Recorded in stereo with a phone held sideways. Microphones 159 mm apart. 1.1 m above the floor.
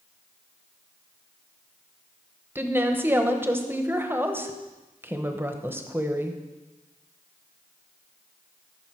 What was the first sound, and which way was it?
A woman speaking, 15° right (ahead or behind).